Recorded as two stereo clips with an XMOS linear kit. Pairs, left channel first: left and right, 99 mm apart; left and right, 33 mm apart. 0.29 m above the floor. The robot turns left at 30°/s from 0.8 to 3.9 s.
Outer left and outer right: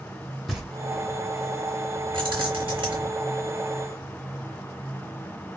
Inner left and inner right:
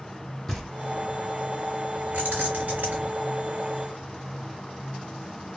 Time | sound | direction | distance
0.5 | knocking | centre (ahead or behind) | 1.0 m
2.1 | keys jangling | 60° right (ahead or behind) | 1.5 m